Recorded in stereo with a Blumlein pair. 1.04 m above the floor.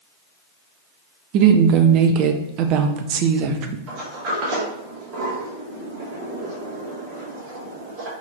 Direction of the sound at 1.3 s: 40° right.